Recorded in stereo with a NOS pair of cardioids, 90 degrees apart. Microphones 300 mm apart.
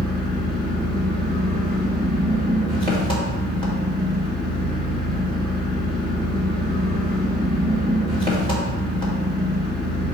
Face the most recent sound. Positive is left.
turn(degrees=15)